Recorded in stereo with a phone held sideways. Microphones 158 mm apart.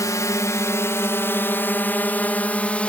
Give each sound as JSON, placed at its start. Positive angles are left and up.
{"t": 0.0, "sound": "a drone", "side_deg": 20}